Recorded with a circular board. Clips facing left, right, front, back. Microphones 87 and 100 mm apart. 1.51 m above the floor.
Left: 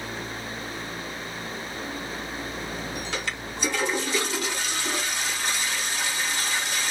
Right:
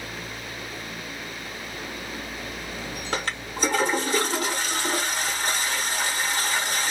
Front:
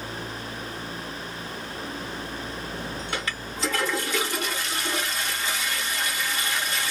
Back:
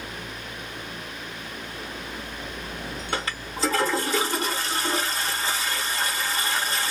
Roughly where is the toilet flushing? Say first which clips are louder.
Right 2 dB, back 2 dB; behind right.